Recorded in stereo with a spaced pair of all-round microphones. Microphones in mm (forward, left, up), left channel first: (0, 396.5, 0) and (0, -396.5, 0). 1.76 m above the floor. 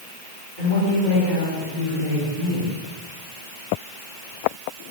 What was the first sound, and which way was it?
A woman speaking, 30° left (ahead or behind).